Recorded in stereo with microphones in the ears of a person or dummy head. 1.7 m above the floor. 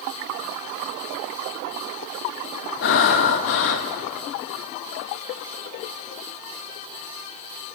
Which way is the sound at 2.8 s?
60° left (ahead or behind).